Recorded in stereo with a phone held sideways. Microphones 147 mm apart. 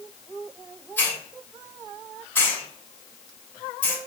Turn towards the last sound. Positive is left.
turn(degrees=15)  # may be behind; listen again after turning